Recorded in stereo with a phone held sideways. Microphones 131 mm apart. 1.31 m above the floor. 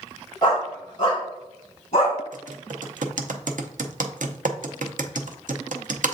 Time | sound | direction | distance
0.4 | a dog barking | 35° left (ahead or behind) | 2.5 m
2.3 | typing on a keyboard | 80° right | 0.6 m